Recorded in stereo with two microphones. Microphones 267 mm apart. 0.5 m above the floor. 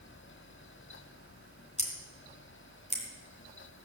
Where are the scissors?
25° left (ahead or behind), 3 m.